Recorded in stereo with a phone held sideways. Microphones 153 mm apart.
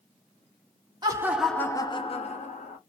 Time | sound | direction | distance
1.0 | laughter | 25° right (ahead or behind) | 0.5 m